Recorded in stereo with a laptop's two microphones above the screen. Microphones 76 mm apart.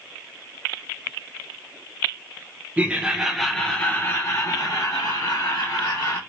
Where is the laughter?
20° right (ahead or behind), 0.9 m; by 6.2 s 65° left (ahead or behind), 1.5 m.